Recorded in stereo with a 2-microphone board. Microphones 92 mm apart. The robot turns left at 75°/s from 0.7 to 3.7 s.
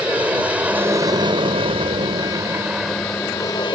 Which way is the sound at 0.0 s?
15° right.